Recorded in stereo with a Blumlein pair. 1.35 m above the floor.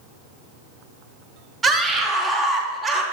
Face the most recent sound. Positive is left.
turn(degrees=-15)